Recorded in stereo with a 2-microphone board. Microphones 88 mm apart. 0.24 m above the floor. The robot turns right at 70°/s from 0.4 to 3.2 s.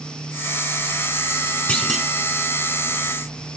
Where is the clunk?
15° left (ahead or behind), 0.9 m; by 2.1 s 10° right (ahead or behind), 0.9 m.